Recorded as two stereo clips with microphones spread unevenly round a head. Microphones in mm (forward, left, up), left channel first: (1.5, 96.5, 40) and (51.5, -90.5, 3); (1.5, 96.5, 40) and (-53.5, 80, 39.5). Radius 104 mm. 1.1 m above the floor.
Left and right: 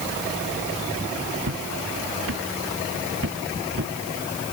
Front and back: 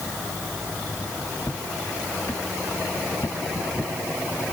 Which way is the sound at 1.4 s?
60° right.